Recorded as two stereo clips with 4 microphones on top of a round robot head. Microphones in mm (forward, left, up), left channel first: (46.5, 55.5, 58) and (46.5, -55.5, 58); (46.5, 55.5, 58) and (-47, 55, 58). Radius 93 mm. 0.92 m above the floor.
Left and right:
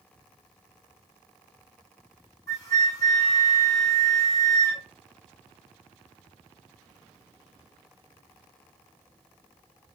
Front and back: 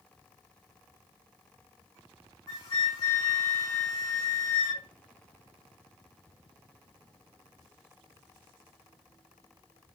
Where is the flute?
30° left, 2.0 m.